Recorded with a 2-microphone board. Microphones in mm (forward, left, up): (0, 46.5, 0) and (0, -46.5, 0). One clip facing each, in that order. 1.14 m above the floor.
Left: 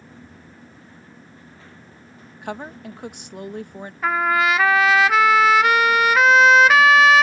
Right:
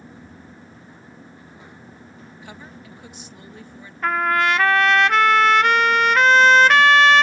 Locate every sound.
2.4 s a woman speaking: 55° left (ahead or behind)
4.0 s a trumpet: 5° left (ahead or behind)